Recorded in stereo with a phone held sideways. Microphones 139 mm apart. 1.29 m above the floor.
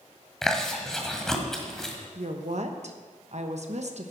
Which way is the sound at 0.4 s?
5° left (ahead or behind).